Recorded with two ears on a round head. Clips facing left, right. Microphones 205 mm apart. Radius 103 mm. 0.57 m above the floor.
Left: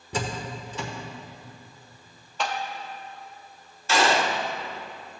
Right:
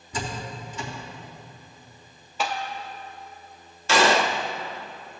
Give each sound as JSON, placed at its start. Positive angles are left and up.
{"t": 0.1, "sound": "a door slam", "side_deg": 55, "distance_m": 1.2}
{"t": 2.4, "sound": "tapping", "side_deg": -5, "distance_m": 0.8}
{"t": 3.9, "sound": "a gunshot", "side_deg": -55, "distance_m": 0.6}